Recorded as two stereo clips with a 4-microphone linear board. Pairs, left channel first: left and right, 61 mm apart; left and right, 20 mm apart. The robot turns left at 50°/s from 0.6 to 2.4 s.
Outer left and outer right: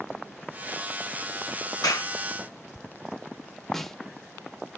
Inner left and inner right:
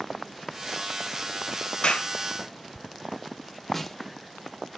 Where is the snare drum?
5° left (ahead or behind), 0.6 m.